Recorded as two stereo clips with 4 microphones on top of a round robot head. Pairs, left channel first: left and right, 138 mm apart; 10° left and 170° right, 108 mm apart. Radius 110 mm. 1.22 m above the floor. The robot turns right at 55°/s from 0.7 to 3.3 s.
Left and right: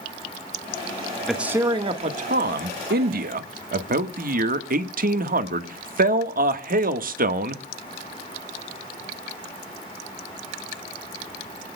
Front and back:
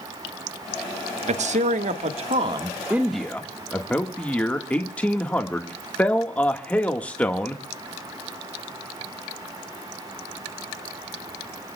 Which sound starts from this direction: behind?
A man speaking, at 1.3 s.